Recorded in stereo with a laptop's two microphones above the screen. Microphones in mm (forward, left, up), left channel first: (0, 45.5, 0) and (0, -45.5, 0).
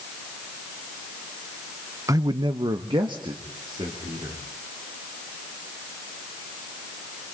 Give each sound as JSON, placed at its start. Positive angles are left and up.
{"t": 2.1, "sound": "a man speaking", "side_deg": -35, "distance_m": 0.7}